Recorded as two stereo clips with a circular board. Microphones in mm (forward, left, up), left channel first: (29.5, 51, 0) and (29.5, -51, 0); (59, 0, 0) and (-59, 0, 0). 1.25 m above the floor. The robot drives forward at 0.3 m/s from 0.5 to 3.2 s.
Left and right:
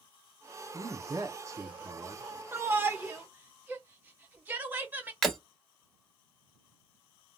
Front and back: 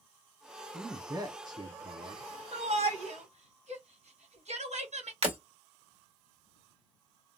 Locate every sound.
0.7 s a man speaking: 125° right, 0.8 m; by 2.3 s 150° right, 1.1 m
2.5 s a shout: 155° right, 0.9 m; by 5.1 s 160° right, 1.1 m
5.2 s breaking glass: 175° left, 1.5 m